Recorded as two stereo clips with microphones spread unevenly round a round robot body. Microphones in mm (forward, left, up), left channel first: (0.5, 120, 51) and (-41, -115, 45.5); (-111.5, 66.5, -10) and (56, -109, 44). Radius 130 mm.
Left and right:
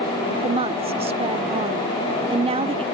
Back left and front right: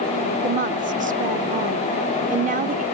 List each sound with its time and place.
0.4 s a woman speaking: 90° right